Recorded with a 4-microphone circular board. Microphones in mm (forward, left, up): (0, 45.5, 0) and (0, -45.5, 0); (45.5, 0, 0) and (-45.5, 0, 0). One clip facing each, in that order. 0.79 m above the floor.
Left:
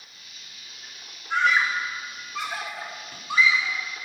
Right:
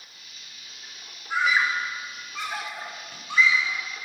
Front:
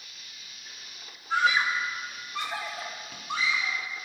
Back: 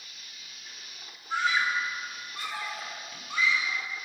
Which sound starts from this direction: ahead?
A scream, at 1.3 s.